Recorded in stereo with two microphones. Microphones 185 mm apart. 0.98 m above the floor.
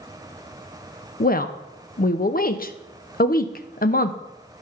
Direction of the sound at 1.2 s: 50° left (ahead or behind).